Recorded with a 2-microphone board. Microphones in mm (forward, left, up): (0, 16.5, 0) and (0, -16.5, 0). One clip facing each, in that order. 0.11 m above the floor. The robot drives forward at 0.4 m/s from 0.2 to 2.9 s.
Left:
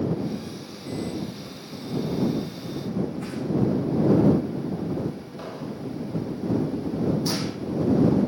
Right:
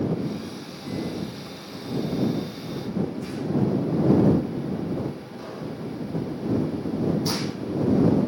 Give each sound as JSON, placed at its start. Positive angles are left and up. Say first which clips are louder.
{"t": 3.2, "sound": "a whoosh", "louder": "even", "side_deg": 45, "distance_m": 8.5}
{"t": 5.4, "sound": "an explosion", "louder": "even", "side_deg": 35, "distance_m": 8.0}
{"t": 7.3, "sound": "a gunshot", "louder": "even", "side_deg": -5, "distance_m": 4.0}